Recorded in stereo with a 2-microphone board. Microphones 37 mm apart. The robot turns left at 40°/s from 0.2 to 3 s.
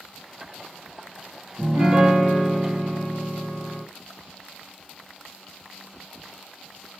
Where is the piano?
160° right, 1.8 m; by 3.8 s 145° left, 1.8 m.